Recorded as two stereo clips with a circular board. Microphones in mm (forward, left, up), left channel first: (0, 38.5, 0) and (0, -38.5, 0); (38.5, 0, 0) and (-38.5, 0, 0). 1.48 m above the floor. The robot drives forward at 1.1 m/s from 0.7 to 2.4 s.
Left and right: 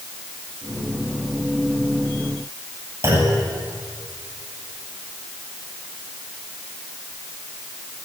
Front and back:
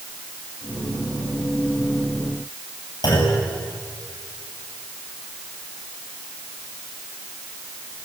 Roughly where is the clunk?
Ahead right.